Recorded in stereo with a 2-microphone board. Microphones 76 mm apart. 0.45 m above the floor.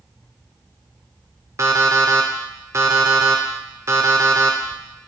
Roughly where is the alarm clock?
Right.